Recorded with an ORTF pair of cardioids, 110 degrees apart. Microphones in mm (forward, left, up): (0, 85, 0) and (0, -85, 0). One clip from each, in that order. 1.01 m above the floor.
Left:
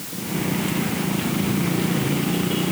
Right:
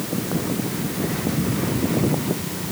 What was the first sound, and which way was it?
Only background noise.